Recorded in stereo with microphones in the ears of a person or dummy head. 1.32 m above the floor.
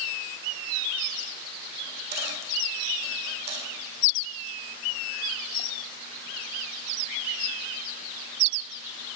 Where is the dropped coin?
40° right (ahead or behind), 4 m.